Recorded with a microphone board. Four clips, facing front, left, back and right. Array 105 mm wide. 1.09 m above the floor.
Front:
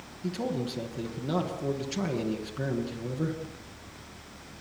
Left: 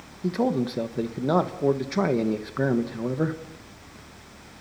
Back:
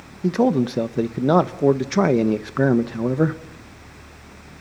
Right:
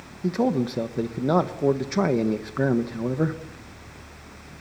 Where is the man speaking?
175° right, 1.1 m.